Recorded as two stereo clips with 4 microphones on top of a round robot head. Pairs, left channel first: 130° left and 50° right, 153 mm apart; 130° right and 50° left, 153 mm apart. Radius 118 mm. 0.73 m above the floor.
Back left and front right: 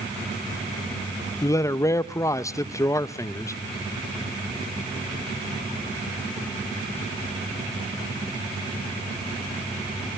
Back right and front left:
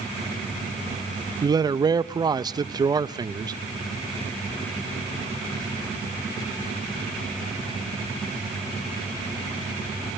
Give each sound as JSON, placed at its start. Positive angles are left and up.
{"t": 1.4, "sound": "a man speaking", "azimuth_deg": 80, "distance_m": 0.5}